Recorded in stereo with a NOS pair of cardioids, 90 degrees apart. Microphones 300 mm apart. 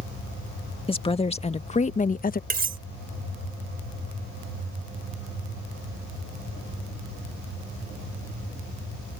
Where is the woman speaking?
20° left; by 2.4 s 30° left.